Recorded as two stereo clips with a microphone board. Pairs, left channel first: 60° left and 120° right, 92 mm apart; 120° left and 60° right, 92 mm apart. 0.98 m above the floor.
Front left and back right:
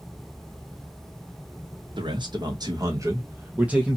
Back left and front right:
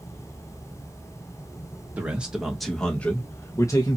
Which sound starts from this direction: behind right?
A man speaking, at 2.0 s.